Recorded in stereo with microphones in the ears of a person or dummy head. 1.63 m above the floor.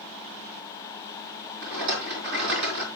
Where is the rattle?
65° right (ahead or behind), 3.5 m.